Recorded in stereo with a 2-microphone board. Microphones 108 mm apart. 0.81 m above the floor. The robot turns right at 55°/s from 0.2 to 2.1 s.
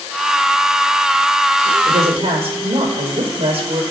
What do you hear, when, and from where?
1.9 s a woman speaking: 80° right, 3 m; by 3.8 s 70° right (ahead or behind), 3 m